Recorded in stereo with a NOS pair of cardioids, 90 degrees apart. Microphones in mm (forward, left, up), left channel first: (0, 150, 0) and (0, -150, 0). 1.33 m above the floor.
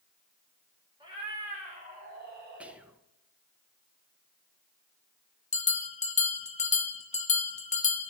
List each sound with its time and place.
1.0 s a cat meowing: 15° right, 2.5 m; by 2.8 s 40° right, 2 m
2.6 s whispering: 5° right, 0.8 m
5.5 s a bell: 25° left, 0.9 m